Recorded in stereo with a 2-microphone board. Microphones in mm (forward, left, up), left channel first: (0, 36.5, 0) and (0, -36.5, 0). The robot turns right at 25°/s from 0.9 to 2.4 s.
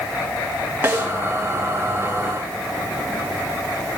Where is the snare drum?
25° right (ahead or behind), 2.5 m; by 1.1 s 30° right (ahead or behind), 2.5 m.